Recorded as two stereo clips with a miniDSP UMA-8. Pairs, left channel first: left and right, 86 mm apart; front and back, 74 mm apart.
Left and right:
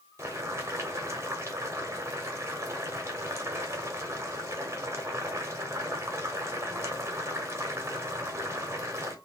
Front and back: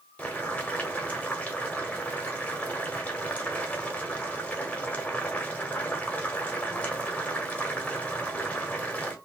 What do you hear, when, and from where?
0.2 s boiling: 60° right, 1.1 m